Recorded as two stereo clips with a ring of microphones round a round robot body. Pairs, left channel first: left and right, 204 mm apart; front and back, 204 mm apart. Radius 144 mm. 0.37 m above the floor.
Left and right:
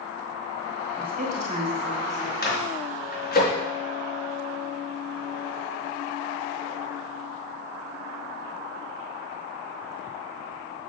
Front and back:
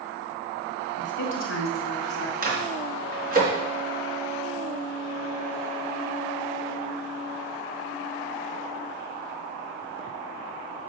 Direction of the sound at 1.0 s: 40° right.